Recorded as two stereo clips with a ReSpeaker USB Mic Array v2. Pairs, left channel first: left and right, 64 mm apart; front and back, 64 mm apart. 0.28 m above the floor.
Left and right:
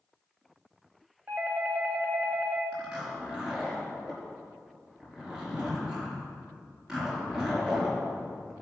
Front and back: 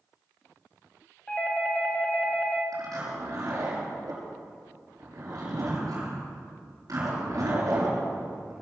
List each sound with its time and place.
1.3 s a doorbell: 55° right, 2.5 m
2.7 s a zipper: 170° right, 6 m